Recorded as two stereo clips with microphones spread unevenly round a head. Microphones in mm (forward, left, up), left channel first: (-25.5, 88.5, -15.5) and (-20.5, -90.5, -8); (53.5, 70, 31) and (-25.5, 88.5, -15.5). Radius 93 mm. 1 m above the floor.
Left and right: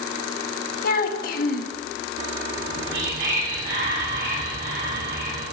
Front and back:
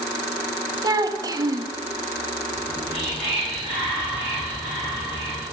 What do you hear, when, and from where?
0.8 s a child speaking: 130° left, 1.2 m
2.5 s whispering: 105° right, 3.5 m